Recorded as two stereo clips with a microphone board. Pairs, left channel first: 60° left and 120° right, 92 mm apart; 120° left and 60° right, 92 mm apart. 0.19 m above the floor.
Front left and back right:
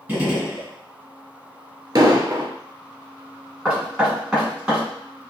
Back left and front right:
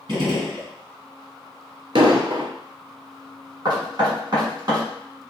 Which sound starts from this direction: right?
An explosion, at 1.9 s.